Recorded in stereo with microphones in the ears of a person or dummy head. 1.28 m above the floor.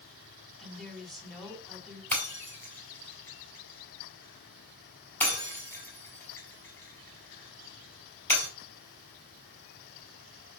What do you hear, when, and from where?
0.6 s a woman speaking: 5° left (ahead or behind), 2.5 m
2.1 s breaking glass: 10° left (ahead or behind), 3.5 m